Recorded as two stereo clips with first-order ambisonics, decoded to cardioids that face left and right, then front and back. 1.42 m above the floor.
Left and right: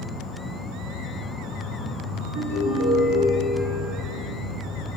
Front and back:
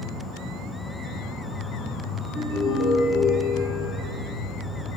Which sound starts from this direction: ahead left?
An insect, at 0.0 s.